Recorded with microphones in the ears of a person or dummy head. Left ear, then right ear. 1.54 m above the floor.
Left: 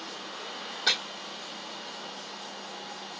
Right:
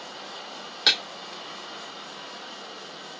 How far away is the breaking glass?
About 1.9 m.